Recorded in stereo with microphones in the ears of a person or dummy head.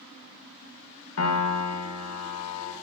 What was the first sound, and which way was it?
A piano, 80° left.